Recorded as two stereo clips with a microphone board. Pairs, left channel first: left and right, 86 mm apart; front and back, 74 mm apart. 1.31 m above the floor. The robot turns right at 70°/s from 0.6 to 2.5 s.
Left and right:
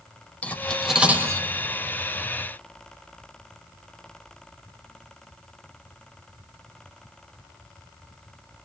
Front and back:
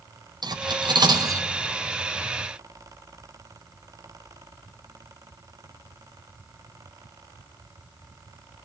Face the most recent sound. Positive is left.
turn(degrees=-65)